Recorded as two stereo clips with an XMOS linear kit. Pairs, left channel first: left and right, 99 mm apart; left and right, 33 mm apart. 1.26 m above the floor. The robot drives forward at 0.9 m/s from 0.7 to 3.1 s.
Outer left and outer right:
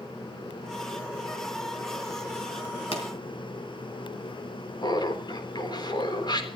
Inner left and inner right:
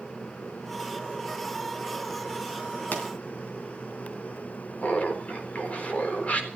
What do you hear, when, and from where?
2.9 s a pop: 70° left (ahead or behind), 3.5 m
4.8 s laughter: 50° left (ahead or behind), 3.5 m